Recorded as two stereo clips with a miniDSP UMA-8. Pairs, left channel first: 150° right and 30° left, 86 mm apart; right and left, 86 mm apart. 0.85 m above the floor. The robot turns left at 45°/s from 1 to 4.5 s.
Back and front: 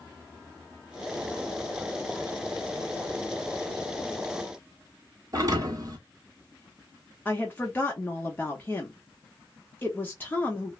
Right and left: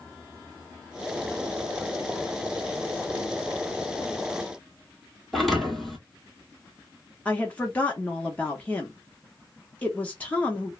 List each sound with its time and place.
5.3 s a thud: 5° right, 1.3 m
7.2 s a woman speaking: 130° right, 0.7 m